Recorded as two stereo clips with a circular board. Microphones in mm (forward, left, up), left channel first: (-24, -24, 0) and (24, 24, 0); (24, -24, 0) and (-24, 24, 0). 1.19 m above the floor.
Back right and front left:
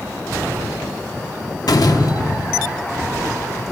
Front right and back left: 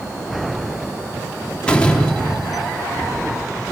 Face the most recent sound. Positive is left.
turn(degrees=-120)